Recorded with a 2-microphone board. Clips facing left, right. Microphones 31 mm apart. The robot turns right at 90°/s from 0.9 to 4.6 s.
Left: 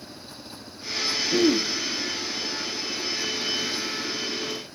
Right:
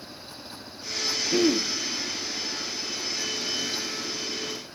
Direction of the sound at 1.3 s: 10° right.